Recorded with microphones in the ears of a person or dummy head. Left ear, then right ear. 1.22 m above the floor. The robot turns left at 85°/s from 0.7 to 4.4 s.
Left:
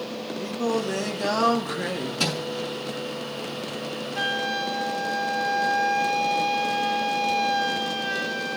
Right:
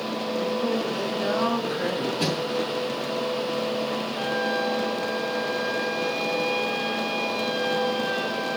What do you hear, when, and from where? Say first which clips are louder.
0.4 s singing: left 1 dB; 130° left, 2 m; by 2.1 s 10° left, 2 m
2.2 s a thud: left 3 dB; 55° left (ahead or behind), 6 m; by 2.4 s 35° left (ahead or behind), 6 m
4.2 s a flute: left 2 dB; 25° left (ahead or behind), 0.6 m; by 8.6 s 10° left (ahead or behind), 0.6 m